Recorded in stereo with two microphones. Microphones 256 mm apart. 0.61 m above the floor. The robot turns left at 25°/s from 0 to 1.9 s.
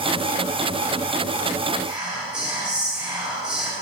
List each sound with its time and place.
1.8 s whispering: 15° right (ahead or behind), 3 m